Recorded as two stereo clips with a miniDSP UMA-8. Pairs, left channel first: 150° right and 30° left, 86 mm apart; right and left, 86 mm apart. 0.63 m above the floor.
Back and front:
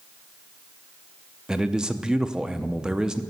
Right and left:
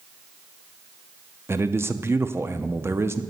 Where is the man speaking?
100° left, 0.6 m.